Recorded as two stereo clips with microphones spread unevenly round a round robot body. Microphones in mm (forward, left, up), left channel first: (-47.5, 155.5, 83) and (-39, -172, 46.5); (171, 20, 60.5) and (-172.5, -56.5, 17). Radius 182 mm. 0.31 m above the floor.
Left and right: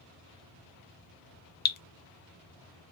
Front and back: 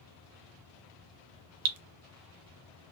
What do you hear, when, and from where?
1.6 s dripping: 155° left, 0.6 m